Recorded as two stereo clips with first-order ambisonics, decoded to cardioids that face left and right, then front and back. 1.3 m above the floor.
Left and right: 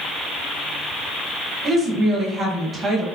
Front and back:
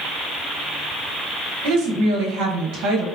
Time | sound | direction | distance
1.6 | a woman speaking | 165° right | 1.1 m